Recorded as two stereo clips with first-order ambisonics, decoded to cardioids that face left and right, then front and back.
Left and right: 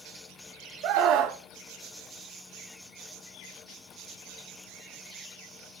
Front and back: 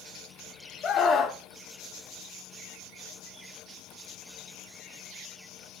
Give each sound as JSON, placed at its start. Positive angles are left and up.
{"t": 0.8, "sound": "a scream", "azimuth_deg": -60, "distance_m": 1.3}